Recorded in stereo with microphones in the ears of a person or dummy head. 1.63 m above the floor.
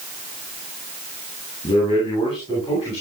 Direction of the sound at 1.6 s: 30° left (ahead or behind).